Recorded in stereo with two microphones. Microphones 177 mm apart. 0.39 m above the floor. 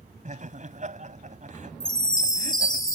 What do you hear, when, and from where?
0.2 s laughter: 45° right (ahead or behind)
1.8 s a chime: 20° left (ahead or behind)